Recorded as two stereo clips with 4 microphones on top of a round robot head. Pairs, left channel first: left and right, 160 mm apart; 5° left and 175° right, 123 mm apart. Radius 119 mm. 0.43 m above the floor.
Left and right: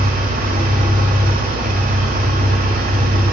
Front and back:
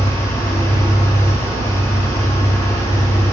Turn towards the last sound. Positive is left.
turn(degrees=-65)